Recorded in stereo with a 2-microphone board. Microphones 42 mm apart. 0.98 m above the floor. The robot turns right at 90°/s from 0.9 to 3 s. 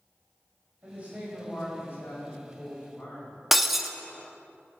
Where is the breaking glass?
5° right (ahead or behind), 0.8 m.